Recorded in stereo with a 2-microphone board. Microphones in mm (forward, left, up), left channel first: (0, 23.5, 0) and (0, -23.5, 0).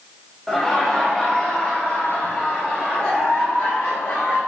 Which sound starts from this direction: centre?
Laughter, at 0.5 s.